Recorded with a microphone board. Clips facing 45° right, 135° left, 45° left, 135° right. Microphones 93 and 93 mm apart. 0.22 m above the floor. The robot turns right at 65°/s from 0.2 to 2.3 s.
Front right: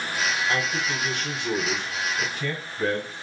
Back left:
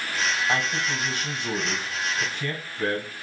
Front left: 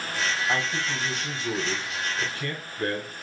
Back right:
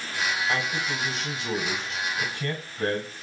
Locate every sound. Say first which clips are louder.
0.5 s a man speaking: even, even; 120° left, 1.2 m; by 3.2 s 120° right, 1.2 m